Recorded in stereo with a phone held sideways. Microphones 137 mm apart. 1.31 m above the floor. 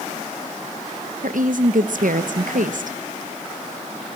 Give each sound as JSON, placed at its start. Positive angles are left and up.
{"t": 1.2, "sound": "a woman speaking", "side_deg": -75, "distance_m": 1.0}